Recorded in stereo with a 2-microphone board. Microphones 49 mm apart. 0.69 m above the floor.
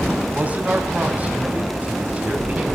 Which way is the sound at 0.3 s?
30° right (ahead or behind).